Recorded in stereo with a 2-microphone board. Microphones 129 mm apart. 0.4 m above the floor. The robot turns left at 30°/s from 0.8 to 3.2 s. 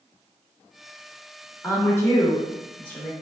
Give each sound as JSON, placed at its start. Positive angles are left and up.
{"t": 1.6, "sound": "a woman speaking", "side_deg": 20, "distance_m": 0.8}